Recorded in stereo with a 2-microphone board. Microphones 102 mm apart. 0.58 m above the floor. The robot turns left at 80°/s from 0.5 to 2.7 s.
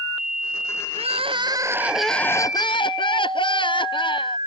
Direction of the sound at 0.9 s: 95° right.